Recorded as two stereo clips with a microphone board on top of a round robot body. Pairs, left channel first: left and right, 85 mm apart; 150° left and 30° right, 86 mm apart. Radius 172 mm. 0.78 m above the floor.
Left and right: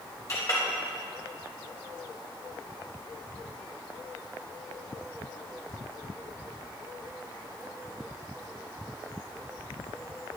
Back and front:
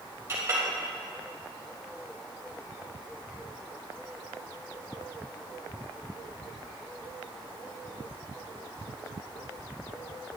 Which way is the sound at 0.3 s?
35° left.